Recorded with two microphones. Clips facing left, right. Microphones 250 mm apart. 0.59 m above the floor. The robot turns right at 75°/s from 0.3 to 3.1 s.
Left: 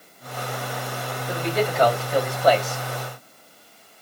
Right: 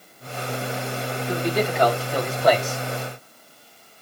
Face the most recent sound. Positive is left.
turn(degrees=-120)